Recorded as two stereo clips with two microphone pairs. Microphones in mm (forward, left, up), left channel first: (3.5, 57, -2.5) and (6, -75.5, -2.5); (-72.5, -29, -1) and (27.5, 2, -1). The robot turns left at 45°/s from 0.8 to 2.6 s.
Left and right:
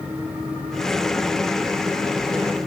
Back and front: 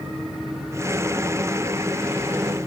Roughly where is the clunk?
I don't hear a clunk.